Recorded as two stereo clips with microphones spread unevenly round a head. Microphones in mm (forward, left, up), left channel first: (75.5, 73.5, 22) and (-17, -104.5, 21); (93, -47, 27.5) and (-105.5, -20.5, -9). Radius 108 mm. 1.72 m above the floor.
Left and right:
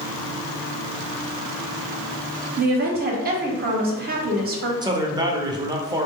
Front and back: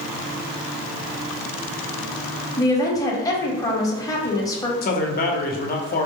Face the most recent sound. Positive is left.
turn(degrees=-45)